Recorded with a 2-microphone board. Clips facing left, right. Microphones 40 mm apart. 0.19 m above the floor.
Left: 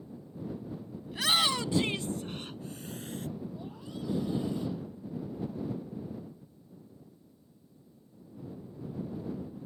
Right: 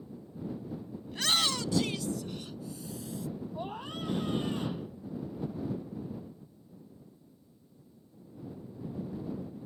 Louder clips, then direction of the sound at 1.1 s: Left 2 dB; 5° left (ahead or behind).